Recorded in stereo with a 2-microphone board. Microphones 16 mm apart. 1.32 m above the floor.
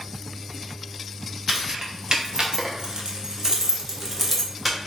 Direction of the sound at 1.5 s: 50° right (ahead or behind).